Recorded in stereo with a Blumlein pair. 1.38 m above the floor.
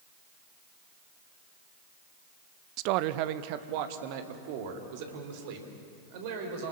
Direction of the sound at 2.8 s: 40° right.